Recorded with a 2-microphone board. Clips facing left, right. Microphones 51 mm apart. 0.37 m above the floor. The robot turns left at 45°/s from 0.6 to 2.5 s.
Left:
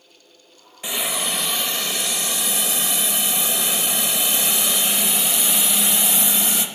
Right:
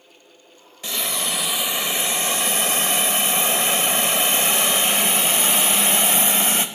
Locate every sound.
0.8 s a hiss: 20° left, 0.5 m; by 6.7 s 55° right, 0.5 m